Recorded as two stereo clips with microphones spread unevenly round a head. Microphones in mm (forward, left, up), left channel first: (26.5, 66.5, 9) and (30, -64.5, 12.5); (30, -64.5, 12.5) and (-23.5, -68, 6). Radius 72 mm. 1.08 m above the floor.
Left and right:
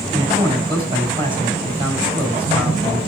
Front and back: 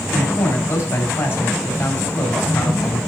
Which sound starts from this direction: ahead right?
A man speaking, at 0.1 s.